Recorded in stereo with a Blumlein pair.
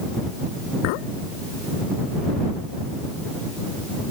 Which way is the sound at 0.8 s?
45° left.